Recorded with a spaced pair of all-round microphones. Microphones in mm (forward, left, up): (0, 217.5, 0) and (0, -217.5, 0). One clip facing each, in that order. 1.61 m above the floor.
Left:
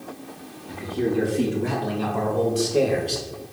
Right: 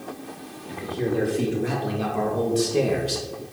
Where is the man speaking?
25° left (ahead or behind), 4 m; by 3.2 s 30° right (ahead or behind), 2 m.